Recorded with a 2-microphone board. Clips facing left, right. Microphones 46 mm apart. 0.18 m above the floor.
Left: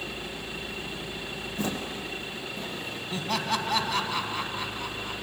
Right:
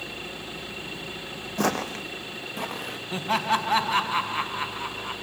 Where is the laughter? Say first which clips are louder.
Right 5 dB; 25° right (ahead or behind), 1.0 m.